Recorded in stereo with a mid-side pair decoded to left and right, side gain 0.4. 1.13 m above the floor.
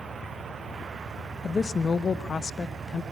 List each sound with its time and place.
1.4 s a woman speaking: 35° left, 1.2 m